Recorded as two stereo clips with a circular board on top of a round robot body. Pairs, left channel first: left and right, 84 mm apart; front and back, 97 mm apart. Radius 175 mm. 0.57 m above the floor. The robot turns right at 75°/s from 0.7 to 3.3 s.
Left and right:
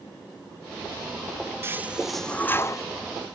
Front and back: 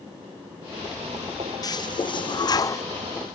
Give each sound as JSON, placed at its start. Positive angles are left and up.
{"t": 1.6, "sound": "a toilet flushing", "azimuth_deg": -35, "distance_m": 0.6}